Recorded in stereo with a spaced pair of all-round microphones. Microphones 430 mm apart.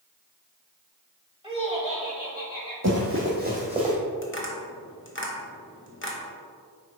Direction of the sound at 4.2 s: 30° left (ahead or behind).